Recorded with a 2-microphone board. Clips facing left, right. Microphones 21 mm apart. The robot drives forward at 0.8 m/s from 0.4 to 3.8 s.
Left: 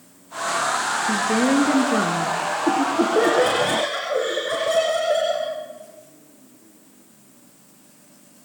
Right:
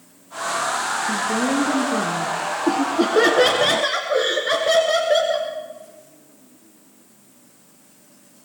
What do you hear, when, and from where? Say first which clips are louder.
1.1 s a woman speaking: left 4 dB; 55° left (ahead or behind), 2.5 m; by 2.4 s 60° left (ahead or behind), 2.5 m
2.7 s laughter: right 1 dB; 50° right (ahead or behind), 2.0 m; by 5.5 s 40° right (ahead or behind), 2 m